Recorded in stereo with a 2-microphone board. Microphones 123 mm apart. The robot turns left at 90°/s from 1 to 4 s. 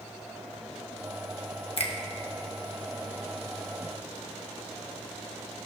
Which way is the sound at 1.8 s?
50° left (ahead or behind).